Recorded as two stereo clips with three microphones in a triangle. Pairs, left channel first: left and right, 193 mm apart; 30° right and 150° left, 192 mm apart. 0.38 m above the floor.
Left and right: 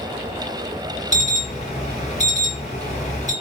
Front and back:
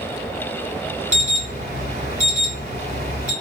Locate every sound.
1.1 s an alarm: 120° left, 2 m